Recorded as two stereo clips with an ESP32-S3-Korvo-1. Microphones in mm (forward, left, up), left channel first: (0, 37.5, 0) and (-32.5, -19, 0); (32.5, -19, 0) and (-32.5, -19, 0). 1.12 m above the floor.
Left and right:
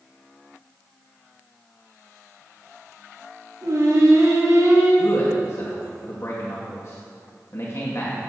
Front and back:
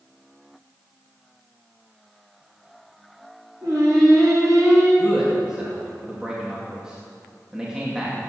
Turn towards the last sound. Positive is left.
turn(degrees=100)